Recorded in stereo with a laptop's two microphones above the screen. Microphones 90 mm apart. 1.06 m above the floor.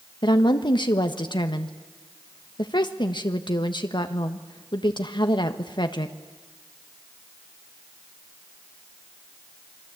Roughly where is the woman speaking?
Left.